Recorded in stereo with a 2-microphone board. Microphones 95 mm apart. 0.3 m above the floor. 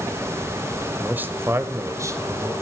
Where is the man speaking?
15° right (ahead or behind), 1.0 m; by 2.5 s 30° right (ahead or behind), 1.3 m.